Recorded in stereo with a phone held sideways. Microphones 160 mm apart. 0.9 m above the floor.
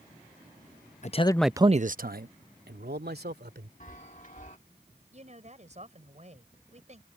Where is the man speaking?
45° left (ahead or behind); by 3.7 s 85° right.